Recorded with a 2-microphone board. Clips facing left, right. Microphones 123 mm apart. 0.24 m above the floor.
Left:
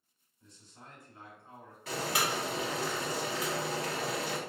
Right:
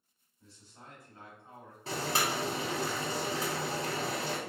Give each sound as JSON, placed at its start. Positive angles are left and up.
{"t": 0.4, "sound": "a man speaking", "side_deg": -10, "distance_m": 1.6}
{"t": 1.9, "sound": "boiling", "side_deg": -30, "distance_m": 0.9}